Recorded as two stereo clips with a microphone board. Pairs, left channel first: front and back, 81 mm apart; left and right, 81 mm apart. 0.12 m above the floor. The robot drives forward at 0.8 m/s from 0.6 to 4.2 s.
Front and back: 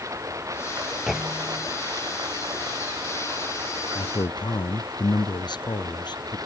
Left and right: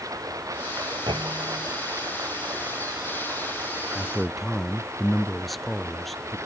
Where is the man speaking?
Straight ahead.